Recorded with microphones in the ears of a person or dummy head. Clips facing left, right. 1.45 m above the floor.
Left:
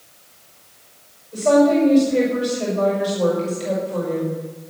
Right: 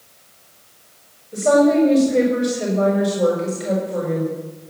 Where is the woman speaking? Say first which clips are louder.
Even; 25° right (ahead or behind), 6 m.